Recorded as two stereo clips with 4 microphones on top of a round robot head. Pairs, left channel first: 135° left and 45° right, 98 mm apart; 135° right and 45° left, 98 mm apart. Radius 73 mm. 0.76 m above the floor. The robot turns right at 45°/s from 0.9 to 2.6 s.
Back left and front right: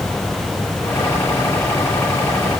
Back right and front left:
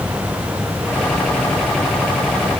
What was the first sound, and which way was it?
Only background noise.